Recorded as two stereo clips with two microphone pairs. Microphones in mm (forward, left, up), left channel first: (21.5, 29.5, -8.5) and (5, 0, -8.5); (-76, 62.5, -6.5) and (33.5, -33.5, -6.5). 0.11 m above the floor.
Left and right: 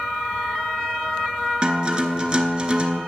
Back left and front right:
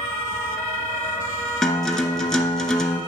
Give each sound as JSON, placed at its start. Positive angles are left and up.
{"t": 1.6, "sound": "a guitar", "azimuth_deg": -145, "distance_m": 0.7}